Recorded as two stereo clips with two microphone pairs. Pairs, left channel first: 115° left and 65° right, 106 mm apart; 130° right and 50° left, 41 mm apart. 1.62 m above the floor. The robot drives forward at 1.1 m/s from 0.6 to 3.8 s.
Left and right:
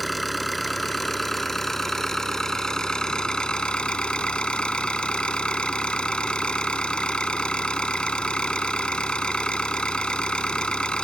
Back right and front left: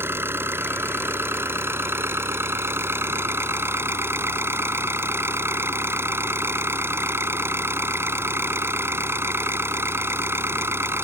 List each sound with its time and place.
0.0 s an engine running: 30° left; by 11.1 s 35° left